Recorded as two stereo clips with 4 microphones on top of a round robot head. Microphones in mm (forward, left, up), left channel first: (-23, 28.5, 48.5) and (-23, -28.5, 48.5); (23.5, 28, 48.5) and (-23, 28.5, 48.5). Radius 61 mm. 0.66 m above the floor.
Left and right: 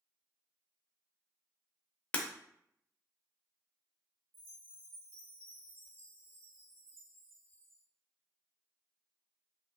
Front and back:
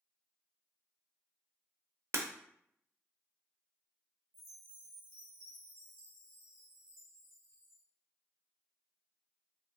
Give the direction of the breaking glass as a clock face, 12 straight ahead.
7 o'clock.